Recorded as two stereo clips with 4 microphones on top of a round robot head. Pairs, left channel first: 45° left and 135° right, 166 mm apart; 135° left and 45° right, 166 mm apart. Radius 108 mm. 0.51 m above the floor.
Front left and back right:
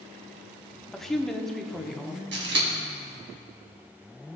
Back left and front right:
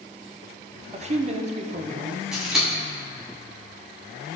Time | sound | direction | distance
0.9 | a woman speaking | 40° right | 0.9 m
2.3 | scissors | 130° right | 1.8 m